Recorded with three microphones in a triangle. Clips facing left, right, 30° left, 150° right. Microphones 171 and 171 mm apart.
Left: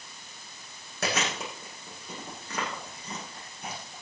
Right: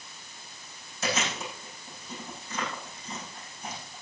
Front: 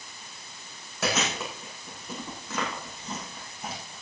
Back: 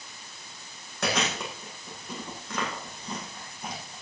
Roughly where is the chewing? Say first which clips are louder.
Left 1 dB, even; behind left.